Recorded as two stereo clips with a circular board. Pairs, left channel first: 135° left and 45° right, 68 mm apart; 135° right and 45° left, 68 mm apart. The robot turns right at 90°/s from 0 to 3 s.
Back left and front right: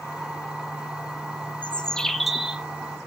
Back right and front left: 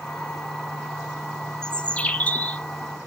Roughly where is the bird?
Behind.